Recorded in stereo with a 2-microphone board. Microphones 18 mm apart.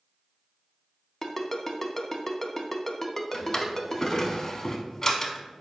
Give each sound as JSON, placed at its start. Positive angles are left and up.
{"t": 1.2, "sound": "a ringtone", "side_deg": 20, "distance_m": 0.5}
{"t": 3.3, "sound": "a drawer", "side_deg": 30, "distance_m": 0.6}